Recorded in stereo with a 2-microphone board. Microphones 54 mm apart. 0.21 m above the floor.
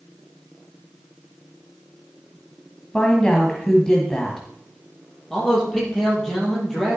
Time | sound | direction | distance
2.9 | a woman speaking | 15° left (ahead or behind) | 1.2 m
5.3 | a man speaking | 10° left (ahead or behind) | 5 m